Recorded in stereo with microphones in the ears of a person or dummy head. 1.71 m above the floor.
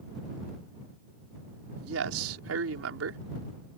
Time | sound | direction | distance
1.8 | a man speaking | 85° right | ?